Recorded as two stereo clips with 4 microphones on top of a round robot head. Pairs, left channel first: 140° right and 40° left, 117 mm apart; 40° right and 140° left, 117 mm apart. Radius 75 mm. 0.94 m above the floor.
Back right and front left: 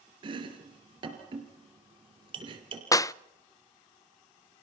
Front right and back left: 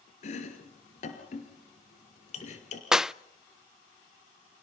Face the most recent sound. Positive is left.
turn(degrees=-140)